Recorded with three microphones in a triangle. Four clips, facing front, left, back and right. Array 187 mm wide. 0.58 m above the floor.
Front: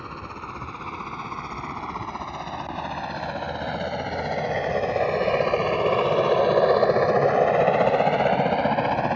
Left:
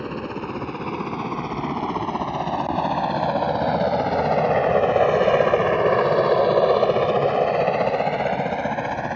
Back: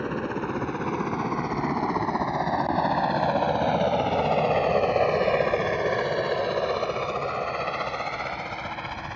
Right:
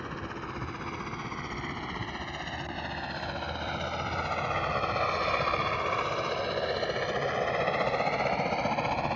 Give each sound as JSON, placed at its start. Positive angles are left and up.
{"t": 0.0, "sound": "a helicopter", "azimuth_deg": 140}